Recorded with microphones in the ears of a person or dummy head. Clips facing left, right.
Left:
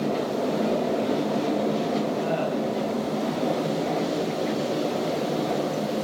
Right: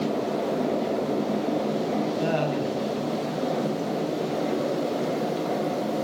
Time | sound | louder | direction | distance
2.2 | laughter | even | 70° right (ahead or behind) | 9.5 m